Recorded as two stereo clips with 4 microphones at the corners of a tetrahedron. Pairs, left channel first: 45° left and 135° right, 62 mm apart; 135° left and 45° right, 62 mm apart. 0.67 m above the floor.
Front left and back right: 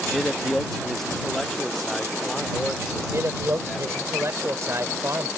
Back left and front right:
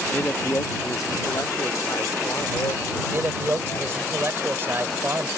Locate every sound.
0.1 s a man speaking: 125° left; by 4.1 s 130° left
3.1 s a man speaking: 100° right